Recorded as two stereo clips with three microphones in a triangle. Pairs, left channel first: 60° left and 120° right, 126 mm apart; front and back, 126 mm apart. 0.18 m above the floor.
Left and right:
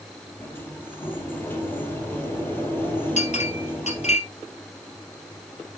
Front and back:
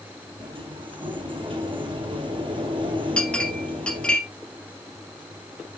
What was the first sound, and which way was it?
A sliding door, 135° left.